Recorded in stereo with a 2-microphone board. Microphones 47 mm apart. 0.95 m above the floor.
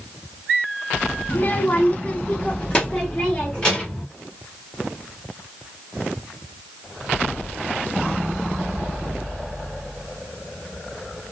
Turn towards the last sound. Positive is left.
turn(degrees=20)  # may be behind; listen again after turning